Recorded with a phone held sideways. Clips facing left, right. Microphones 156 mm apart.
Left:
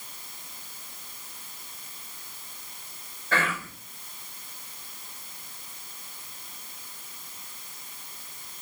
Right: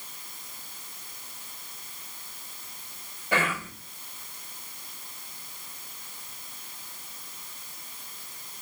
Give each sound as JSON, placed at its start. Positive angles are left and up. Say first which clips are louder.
{"t": 3.3, "sound": "whispering", "louder": "right 1 dB", "side_deg": -15, "distance_m": 0.9}